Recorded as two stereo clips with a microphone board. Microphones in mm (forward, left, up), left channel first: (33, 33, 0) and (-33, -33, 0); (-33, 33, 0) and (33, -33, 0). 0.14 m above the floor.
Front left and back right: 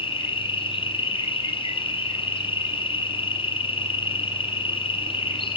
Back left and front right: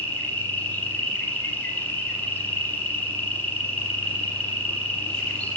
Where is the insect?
65° left, 8.5 m.